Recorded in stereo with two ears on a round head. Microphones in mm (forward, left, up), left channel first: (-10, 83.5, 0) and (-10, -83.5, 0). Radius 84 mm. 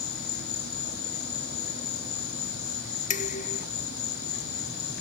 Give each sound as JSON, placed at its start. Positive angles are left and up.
{"t": 0.0, "sound": "an insect", "side_deg": 60}
{"t": 3.1, "sound": "dishes clattering", "side_deg": 45}